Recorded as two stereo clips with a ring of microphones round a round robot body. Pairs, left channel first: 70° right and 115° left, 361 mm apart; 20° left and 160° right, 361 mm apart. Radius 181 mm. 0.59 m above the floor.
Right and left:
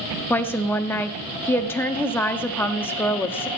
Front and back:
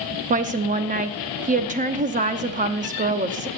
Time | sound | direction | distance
0.3 | a woman speaking | 140° right | 0.7 m